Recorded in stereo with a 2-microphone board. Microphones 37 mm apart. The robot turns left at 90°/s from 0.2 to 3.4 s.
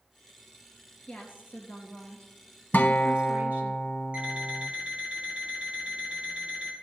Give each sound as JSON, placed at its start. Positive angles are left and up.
{"t": 1.1, "sound": "a woman speaking", "azimuth_deg": 145, "distance_m": 3.5}
{"t": 2.7, "sound": "a guitar", "azimuth_deg": 75, "distance_m": 0.6}
{"t": 4.1, "sound": "an alarm clock", "side_deg": -30, "distance_m": 4.0}